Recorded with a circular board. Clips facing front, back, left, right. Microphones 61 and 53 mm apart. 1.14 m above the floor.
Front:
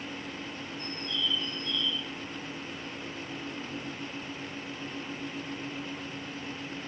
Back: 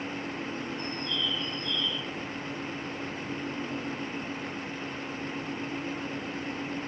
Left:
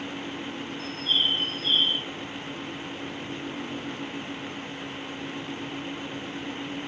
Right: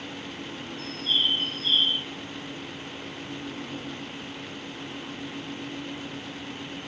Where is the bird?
165° left, 5 m.